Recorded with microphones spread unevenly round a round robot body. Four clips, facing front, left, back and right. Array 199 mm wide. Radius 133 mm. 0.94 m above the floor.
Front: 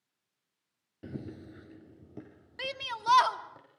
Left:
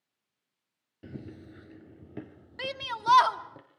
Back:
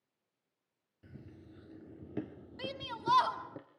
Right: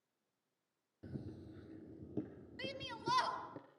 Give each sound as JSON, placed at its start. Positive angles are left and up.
{"t": 1.0, "sound": "running footsteps", "azimuth_deg": 10, "distance_m": 1.1}
{"t": 2.6, "sound": "a shout", "azimuth_deg": 65, "distance_m": 2.5}